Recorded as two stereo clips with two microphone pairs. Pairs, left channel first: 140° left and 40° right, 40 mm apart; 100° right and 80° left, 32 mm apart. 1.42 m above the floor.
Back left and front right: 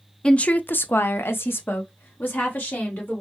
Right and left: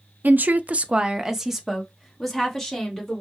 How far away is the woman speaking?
About 0.6 m.